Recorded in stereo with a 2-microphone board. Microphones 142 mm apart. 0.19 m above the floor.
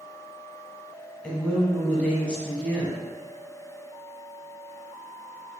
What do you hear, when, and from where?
1.2 s a woman speaking: 10° left (ahead or behind), 1.1 m